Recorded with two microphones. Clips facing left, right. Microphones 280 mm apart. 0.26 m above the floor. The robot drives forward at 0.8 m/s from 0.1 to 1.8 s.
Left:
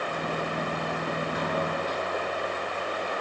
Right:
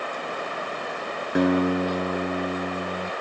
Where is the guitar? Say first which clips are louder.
Right 16 dB; 75° right (ahead or behind), 0.8 m; by 3.1 s 80° right, 0.8 m.